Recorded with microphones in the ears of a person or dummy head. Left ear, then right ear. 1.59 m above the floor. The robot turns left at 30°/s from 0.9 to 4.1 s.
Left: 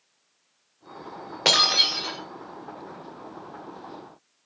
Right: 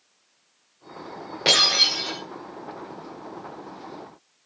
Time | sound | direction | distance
1.4 | breaking glass | 30° left (ahead or behind) | 1.7 m